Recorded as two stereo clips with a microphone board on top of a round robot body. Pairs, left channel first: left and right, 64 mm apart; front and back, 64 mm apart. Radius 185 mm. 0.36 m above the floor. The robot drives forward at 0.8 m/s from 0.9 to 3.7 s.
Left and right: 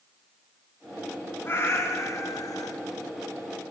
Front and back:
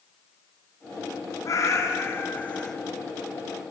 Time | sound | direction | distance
1.4 | a cat meowing | 35° left | 1.5 m